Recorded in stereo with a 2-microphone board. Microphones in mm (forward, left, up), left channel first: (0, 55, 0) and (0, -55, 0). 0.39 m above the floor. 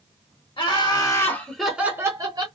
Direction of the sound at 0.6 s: 50° left (ahead or behind).